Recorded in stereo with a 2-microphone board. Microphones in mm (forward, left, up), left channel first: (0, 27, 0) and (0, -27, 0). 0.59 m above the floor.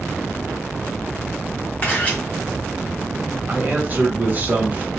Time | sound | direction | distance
1.8 | a camera shutter | 30° left (ahead or behind) | 1.2 m
3.5 | a man speaking | 30° right (ahead or behind) | 0.9 m